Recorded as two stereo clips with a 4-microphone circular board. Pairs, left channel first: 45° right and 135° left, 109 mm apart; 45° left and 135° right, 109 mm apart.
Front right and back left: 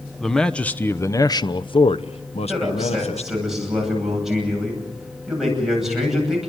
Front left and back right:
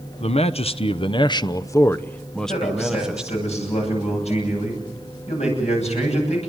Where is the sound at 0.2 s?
45° left, 1.0 m; by 3.4 s 55° right, 1.3 m.